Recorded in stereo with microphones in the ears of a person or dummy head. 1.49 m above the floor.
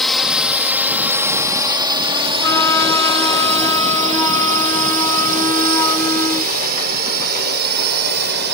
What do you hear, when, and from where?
0.0 s a drone: centre (ahead or behind); by 8.6 s 60° right (ahead or behind)
2.4 s a flute: 15° left (ahead or behind)